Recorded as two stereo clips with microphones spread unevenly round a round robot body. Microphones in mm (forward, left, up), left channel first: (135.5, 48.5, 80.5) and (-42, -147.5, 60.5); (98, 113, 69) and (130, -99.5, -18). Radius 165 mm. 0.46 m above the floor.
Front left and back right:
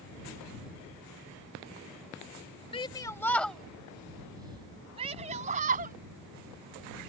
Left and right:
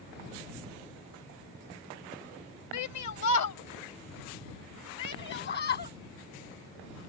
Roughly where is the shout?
Behind left.